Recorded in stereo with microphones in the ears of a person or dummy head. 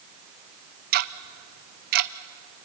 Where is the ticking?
50° right (ahead or behind), 0.6 m.